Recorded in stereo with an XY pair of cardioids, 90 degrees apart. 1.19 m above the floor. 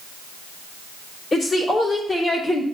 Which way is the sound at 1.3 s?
40° left.